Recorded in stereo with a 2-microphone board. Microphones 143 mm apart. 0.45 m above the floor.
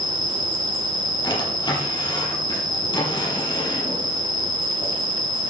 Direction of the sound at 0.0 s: 70° right (ahead or behind).